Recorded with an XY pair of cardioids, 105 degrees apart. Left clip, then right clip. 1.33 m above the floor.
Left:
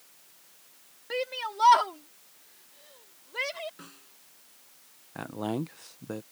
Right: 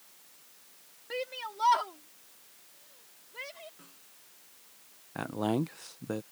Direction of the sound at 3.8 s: 55° left.